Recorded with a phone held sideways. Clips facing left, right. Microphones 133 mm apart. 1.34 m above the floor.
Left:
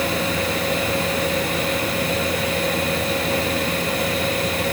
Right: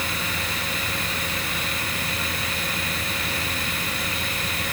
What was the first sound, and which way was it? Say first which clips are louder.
A fan: left 9 dB; 70° left (ahead or behind).